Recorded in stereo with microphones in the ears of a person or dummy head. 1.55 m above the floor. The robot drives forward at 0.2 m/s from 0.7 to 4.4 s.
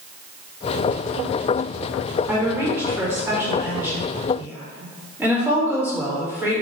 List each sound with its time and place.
2.3 s a woman speaking: 15° right (ahead or behind), 1.6 m